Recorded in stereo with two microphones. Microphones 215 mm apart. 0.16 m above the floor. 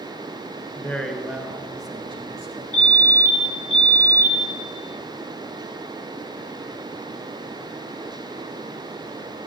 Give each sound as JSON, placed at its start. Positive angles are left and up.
{"t": 0.8, "sound": "a man speaking", "side_deg": 10, "distance_m": 1.9}
{"t": 2.7, "sound": "a fire alarm", "side_deg": 35, "distance_m": 4.0}